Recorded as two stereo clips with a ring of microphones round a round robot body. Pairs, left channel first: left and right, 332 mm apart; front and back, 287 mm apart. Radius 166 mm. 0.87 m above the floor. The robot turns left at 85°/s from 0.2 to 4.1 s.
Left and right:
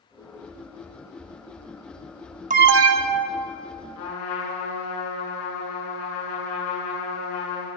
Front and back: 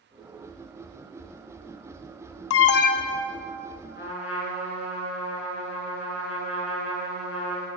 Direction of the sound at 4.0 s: 55° left.